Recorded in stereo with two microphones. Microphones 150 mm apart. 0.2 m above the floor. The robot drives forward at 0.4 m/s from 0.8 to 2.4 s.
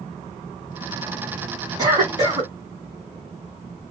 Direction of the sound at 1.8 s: 25° right (ahead or behind).